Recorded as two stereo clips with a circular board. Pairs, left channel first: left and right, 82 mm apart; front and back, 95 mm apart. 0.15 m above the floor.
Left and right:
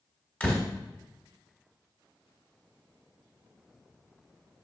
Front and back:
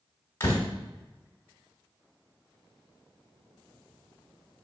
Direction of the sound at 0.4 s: 30° left.